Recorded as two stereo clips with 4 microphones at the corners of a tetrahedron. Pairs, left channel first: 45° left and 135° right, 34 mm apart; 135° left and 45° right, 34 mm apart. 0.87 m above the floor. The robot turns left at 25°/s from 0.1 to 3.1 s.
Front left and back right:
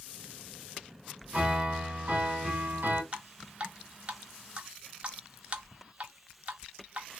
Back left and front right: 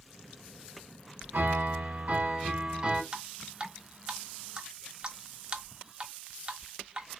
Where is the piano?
70° right, 1.3 m; by 3.0 s 115° right, 1.3 m.